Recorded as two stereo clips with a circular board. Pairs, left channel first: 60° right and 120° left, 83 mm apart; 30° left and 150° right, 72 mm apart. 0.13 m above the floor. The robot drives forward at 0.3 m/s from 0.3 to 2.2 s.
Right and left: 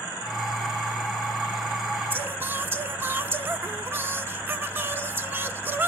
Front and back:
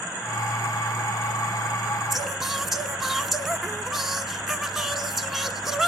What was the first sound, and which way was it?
Singing, 125° left.